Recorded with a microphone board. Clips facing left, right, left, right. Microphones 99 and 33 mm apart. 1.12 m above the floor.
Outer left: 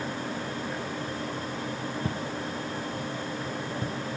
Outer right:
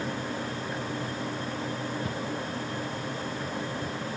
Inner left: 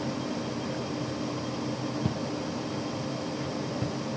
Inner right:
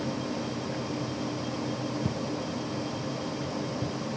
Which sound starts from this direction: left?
Footsteps, at 2.0 s.